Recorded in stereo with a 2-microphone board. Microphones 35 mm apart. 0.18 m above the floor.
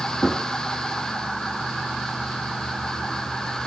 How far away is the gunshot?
About 1.2 m.